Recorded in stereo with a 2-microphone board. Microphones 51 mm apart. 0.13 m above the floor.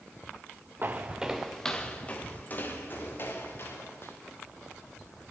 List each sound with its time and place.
0.8 s footsteps: 40° right (ahead or behind), 0.8 m; by 4.1 s 50° left (ahead or behind), 3 m